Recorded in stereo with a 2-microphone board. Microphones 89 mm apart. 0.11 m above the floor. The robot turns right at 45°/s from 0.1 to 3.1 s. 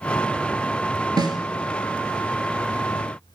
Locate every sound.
1.2 s a snare drum: 50° right (ahead or behind), 1.3 m